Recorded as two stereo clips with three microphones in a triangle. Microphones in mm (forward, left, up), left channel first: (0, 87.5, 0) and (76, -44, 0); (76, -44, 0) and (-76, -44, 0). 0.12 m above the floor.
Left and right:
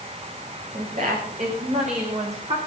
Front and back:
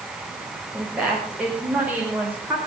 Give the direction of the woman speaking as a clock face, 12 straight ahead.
3 o'clock.